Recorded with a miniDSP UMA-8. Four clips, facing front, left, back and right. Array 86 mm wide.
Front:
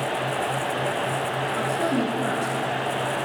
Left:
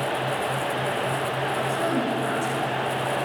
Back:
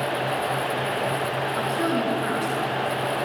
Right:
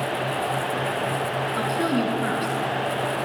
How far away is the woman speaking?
About 1.4 m.